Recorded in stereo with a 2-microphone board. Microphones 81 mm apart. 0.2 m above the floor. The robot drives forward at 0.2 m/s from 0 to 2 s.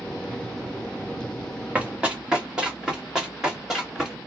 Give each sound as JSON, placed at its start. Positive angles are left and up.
{"t": 1.8, "sound": "running footsteps", "side_deg": -15, "distance_m": 1.4}